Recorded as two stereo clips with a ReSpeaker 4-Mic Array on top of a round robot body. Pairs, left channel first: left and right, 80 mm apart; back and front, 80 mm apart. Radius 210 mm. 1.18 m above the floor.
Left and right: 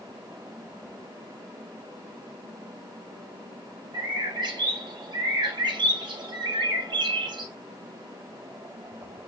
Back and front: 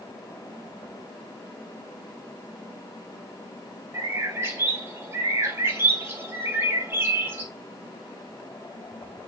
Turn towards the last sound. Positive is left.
turn(degrees=-60)